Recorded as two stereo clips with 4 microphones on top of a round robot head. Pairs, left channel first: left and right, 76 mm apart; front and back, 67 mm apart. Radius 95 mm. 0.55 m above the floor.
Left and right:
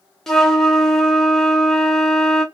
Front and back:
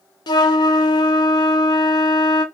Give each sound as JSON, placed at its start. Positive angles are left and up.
{"t": 0.3, "sound": "a flute", "azimuth_deg": 5, "distance_m": 0.7}